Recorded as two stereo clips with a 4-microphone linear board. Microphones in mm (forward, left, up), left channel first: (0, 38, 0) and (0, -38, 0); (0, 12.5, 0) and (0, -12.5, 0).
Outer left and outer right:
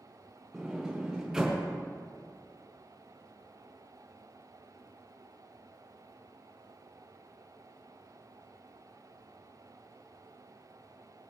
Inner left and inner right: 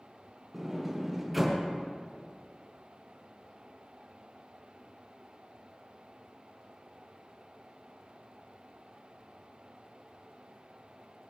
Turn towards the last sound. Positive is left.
turn(degrees=-5)  # may be behind; listen again after turning